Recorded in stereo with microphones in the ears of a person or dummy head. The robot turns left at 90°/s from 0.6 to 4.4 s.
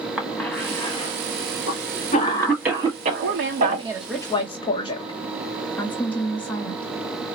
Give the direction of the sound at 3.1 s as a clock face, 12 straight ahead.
3 o'clock.